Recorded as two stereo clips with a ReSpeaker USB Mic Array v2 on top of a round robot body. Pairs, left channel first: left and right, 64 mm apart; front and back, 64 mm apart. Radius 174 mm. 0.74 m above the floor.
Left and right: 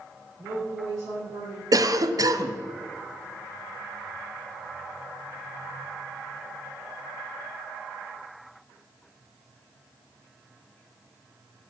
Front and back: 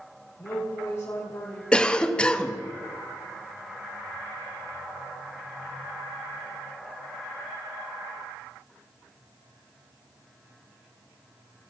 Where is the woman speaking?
50° right, 3.5 m; by 1.6 s 45° right, 3 m.